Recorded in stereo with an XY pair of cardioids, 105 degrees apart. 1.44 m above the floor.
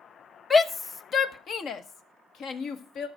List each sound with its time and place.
0.5 s a shout: 25° left, 1.0 m; by 3.1 s 70° left, 2 m